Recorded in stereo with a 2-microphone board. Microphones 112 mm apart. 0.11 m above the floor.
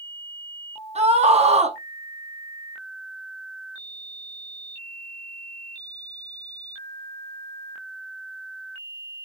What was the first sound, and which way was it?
A scream, 70° right (ahead or behind).